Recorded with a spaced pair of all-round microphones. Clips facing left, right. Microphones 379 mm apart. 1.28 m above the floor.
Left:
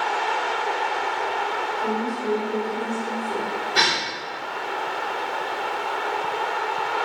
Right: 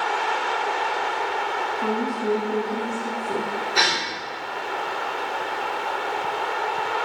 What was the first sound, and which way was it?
A woman speaking, 65° right (ahead or behind).